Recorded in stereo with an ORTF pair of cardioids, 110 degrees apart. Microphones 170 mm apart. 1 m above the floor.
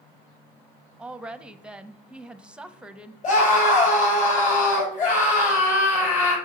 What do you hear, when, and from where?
1.0 s a woman speaking: 5° right, 0.7 m
3.2 s a scream: 50° left, 5 m